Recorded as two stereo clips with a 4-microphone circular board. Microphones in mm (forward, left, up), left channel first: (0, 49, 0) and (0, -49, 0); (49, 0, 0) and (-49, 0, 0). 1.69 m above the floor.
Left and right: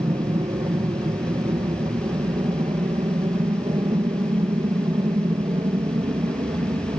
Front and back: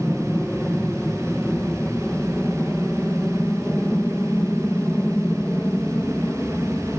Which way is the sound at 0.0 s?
80° right.